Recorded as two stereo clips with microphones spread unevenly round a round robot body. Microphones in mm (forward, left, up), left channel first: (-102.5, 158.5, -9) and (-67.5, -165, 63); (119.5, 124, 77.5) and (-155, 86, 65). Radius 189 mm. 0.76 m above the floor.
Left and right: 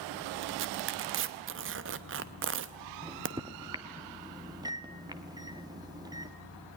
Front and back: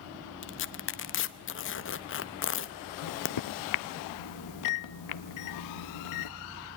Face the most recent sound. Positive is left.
turn(degrees=0)